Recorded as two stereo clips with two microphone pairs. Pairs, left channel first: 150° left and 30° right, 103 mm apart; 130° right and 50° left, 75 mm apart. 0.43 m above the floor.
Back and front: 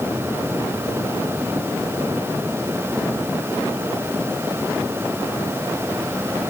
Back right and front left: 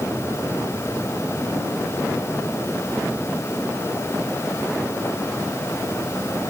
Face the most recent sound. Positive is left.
No sound to turn to.